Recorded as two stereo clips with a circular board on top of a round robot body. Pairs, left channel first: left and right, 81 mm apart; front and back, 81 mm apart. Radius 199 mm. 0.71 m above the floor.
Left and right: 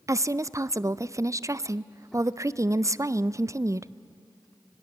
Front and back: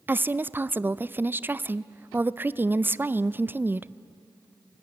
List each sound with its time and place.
0.1 s a woman speaking: 120° right, 0.6 m